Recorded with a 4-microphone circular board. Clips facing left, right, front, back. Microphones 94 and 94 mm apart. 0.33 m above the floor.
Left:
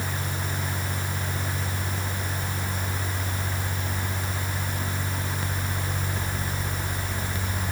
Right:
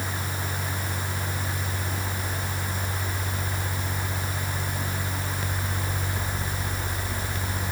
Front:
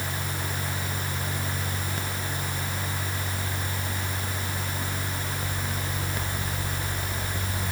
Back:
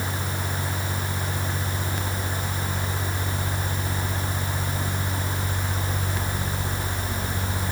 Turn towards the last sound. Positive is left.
No sound to turn to.